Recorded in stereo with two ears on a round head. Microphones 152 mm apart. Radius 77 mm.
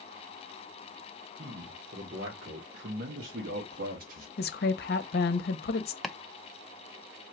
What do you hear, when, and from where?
1.4 s a man speaking: 50° right (ahead or behind), 1.6 m
4.4 s a woman speaking: 65° left (ahead or behind), 0.8 m
6.0 s chopping: centre (ahead or behind), 0.5 m